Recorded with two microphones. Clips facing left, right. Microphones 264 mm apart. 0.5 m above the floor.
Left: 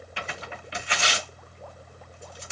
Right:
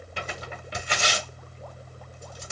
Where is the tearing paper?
45° right (ahead or behind), 1.2 m.